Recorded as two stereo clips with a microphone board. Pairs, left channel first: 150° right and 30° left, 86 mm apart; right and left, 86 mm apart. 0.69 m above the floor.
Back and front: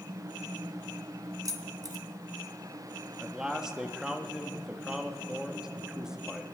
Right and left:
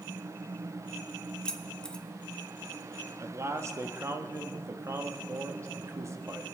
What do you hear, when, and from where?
1.4 s keys jangling: 10° right, 1.0 m
3.2 s a man speaking: 105° left, 0.9 m